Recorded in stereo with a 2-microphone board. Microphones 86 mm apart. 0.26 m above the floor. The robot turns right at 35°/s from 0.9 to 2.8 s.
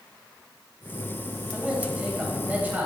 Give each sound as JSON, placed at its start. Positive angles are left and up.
{"t": 1.5, "sound": "a man speaking", "side_deg": -10, "distance_m": 1.5}